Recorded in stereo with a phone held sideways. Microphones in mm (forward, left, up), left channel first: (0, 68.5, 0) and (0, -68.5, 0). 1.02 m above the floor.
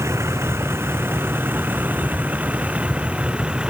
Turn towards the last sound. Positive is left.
turn(degrees=-10)  # may be behind; listen again after turning